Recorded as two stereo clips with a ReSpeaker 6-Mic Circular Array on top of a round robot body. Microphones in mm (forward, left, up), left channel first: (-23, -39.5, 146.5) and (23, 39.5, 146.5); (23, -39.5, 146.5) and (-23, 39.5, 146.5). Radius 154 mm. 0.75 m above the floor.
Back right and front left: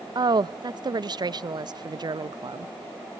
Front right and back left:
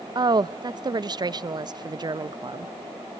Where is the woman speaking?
90° left, 0.7 m.